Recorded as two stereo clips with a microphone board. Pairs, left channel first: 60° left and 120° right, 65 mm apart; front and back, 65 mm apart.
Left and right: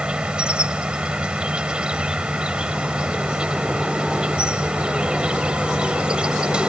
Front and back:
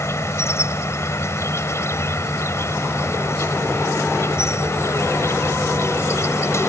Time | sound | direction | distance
0.0 | an insect | 45° right | ?